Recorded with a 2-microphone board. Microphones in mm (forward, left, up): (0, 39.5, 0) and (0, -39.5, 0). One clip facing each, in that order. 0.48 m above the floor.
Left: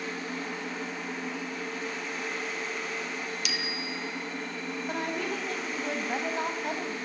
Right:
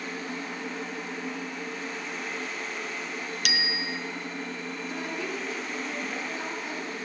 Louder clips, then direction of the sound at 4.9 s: Left 3 dB; 55° left (ahead or behind).